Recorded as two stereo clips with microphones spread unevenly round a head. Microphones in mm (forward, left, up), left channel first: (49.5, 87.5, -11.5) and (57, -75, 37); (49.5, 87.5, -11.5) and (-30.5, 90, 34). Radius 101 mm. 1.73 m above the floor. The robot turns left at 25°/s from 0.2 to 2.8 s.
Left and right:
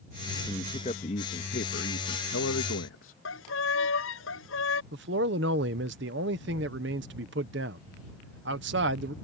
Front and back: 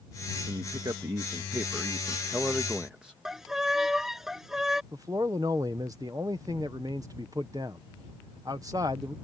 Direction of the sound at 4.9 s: 115° right.